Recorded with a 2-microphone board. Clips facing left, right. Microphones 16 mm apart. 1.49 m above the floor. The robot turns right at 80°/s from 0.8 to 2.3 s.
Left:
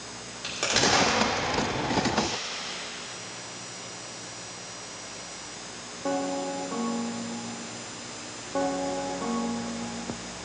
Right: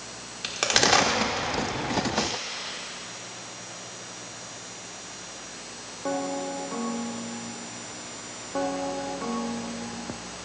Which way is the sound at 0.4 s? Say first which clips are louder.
Right 3 dB; 25° right (ahead or behind).